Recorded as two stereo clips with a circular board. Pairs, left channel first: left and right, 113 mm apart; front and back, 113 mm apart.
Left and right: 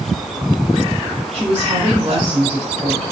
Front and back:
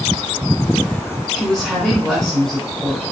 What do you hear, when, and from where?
1.3 s a woman speaking: 85° right, 3 m